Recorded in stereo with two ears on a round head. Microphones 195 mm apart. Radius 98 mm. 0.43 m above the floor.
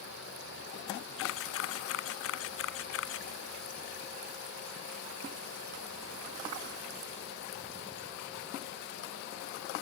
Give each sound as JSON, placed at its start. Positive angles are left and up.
{"t": 1.2, "sound": "a camera shutter", "side_deg": 70}